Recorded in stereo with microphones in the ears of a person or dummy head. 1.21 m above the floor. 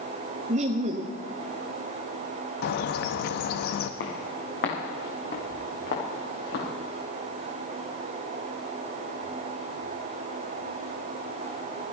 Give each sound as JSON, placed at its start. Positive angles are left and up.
{"t": 0.5, "sound": "laughter", "side_deg": -30, "distance_m": 0.9}
{"t": 2.6, "sound": "a bird", "side_deg": 60, "distance_m": 0.8}
{"t": 4.0, "sound": "footsteps", "side_deg": 70, "distance_m": 4.0}